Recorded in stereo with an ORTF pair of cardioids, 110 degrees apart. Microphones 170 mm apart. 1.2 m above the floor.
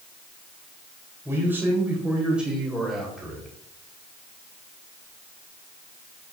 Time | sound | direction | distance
1.2 | a man speaking | 15° right | 4 m